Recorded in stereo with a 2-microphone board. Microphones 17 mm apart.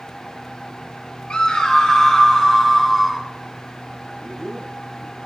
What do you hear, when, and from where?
1.3 s a scream: 45° left (ahead or behind), 1.6 m; by 3.3 s 10° left (ahead or behind), 3.5 m
4.0 s a man speaking: 5° left (ahead or behind), 10 m